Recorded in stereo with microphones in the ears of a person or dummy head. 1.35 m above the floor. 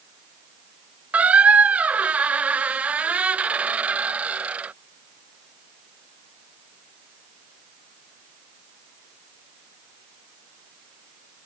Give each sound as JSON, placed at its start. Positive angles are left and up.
{"t": 1.1, "sound": "a squeak", "side_deg": -10}